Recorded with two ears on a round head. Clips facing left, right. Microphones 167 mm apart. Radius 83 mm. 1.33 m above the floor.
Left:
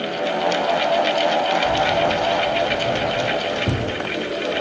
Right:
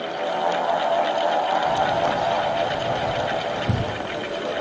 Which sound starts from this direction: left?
Keys jangling, at 1.6 s.